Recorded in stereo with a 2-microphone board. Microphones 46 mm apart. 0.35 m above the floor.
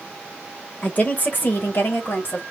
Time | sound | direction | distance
0.8 | a woman speaking | 30° left (ahead or behind) | 1.4 m